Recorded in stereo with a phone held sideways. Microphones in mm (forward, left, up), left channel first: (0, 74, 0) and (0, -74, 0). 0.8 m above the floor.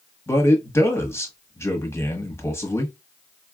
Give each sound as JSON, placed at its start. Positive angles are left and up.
{"t": 0.3, "sound": "a man speaking", "side_deg": 15, "distance_m": 1.0}